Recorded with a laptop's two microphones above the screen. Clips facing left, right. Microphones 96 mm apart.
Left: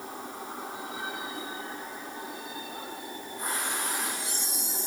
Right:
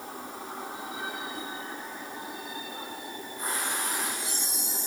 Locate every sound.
Only background noise.